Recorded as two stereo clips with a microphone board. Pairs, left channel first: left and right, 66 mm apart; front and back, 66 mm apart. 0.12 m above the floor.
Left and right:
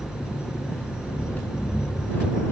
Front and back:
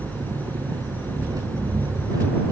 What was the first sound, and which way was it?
An engine running, 155° left.